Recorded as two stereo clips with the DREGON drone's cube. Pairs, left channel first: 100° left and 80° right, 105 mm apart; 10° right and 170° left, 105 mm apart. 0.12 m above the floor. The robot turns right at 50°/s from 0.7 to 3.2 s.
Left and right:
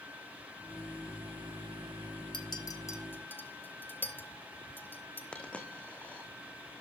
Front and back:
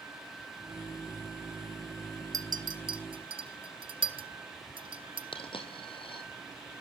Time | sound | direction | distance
2.3 | a clink | 125° left | 1.4 m
5.3 | a dropped coin | 20° left | 2 m